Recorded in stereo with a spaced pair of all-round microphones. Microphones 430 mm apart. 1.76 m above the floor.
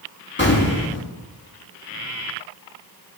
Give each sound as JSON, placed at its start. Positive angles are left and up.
{"t": 0.4, "sound": "an explosion", "side_deg": 25, "distance_m": 3.0}